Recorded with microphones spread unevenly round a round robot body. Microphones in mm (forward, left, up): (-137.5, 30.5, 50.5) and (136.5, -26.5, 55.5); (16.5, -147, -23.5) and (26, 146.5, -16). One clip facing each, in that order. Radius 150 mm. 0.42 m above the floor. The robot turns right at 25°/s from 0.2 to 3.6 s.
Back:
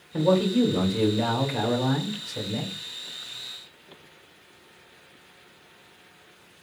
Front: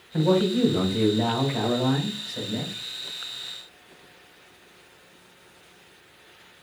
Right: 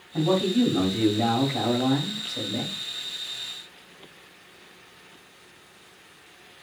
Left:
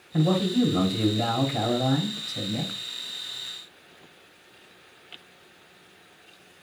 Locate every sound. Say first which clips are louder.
0.1 s a man speaking: even, right 1 dB; 90° left, 1.8 m; by 2.7 s 155° left, 1.8 m